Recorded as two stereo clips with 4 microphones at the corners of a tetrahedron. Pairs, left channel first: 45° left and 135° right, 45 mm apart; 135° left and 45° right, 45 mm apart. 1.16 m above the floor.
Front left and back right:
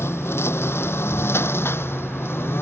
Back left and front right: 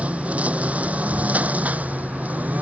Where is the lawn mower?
15° left; by 2.6 s 10° left.